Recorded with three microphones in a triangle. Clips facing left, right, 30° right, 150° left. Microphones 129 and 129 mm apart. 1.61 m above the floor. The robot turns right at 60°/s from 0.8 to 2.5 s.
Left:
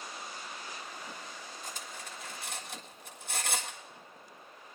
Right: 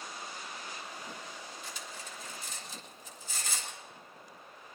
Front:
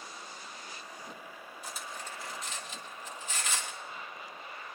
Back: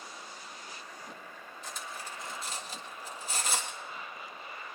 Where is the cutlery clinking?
45° left, 1.7 m; by 3.8 s 100° left, 1.7 m.